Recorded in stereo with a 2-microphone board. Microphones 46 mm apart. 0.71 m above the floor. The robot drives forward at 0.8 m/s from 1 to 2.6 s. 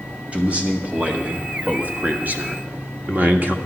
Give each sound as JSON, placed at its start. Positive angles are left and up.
{"t": 0.3, "sound": "a man speaking", "side_deg": -30, "distance_m": 1.6}